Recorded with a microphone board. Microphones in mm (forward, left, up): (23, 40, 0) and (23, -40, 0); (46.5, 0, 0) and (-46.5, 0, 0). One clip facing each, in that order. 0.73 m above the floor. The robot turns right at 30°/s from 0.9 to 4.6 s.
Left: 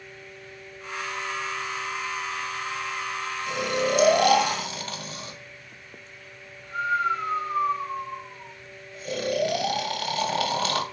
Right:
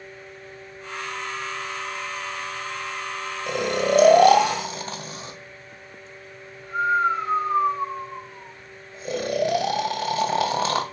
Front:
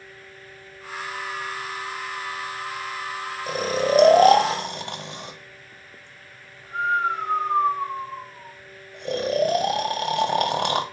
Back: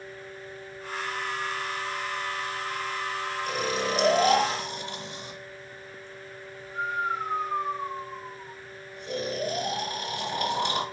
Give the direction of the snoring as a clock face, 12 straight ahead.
2 o'clock.